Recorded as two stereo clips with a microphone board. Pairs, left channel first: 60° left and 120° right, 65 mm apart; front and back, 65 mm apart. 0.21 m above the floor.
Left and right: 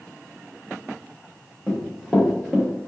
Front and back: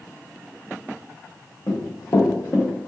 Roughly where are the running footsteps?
Ahead right.